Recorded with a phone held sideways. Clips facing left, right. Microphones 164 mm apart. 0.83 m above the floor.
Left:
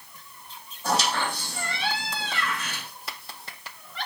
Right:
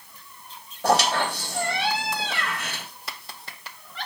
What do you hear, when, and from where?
0.8 s a squeak: 80° right, 3 m